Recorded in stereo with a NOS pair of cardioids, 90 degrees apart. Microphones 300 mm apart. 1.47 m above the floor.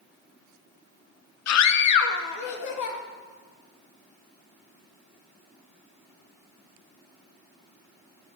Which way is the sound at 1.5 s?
60° left.